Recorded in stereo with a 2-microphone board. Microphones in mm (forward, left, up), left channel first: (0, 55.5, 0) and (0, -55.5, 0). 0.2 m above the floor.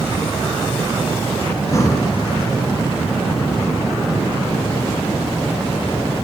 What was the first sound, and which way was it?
Breathing, 30° left (ahead or behind).